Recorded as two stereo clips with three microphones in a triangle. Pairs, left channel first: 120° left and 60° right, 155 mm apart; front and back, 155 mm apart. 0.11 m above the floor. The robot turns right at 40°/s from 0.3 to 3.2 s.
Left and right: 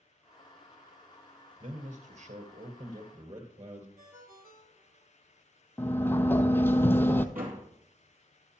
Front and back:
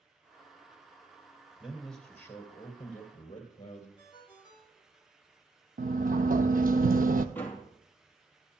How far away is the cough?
No cough in this recording.